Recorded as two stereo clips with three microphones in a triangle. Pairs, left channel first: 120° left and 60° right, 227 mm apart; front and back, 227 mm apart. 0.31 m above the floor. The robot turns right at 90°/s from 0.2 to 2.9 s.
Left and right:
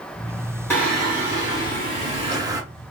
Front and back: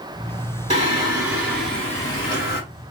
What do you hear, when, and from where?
0.7 s singing: 175° right, 1.6 m; by 2.6 s straight ahead, 1.6 m